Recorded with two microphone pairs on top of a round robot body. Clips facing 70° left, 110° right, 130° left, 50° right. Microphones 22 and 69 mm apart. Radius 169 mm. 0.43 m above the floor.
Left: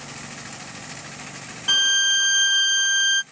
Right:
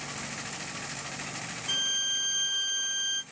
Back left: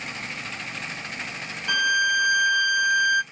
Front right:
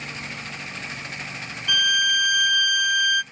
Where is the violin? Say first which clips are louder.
Left 11 dB, back left 1 dB; 80° left, 0.5 m.